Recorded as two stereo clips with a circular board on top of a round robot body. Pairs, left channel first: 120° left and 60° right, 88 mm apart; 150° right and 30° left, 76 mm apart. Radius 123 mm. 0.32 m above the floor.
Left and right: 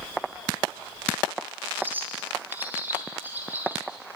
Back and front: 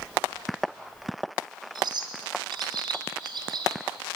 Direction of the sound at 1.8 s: 10° left.